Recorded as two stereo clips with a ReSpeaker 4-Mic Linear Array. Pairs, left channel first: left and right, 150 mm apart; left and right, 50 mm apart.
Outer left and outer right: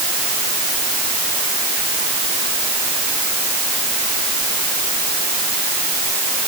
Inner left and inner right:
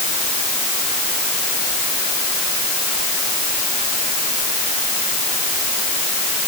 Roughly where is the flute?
I don't hear a flute.